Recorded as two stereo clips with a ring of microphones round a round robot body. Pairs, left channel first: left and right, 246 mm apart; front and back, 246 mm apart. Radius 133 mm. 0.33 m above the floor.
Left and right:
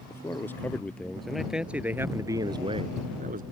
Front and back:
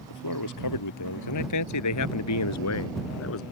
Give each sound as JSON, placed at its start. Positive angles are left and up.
{"t": 0.1, "sound": "a man speaking", "azimuth_deg": 10}